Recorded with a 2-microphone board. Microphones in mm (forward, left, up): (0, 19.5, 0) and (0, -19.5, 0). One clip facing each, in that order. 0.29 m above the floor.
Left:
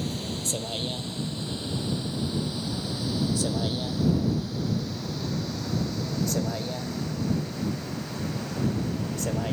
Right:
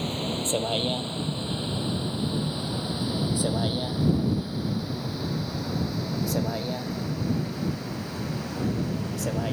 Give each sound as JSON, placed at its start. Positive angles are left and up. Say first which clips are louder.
{"t": 0.0, "sound": "a vehicle", "louder": "right 3 dB", "side_deg": -35}